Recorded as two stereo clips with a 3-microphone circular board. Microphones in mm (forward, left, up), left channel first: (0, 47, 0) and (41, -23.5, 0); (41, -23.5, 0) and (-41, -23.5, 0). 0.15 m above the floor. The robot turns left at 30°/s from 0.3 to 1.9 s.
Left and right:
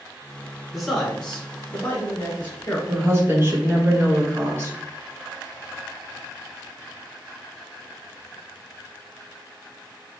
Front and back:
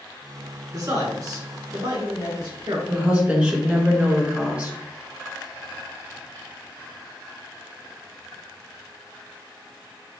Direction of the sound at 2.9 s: 110° right.